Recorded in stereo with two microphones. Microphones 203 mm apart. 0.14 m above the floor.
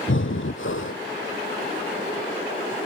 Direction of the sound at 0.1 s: 75° left (ahead or behind).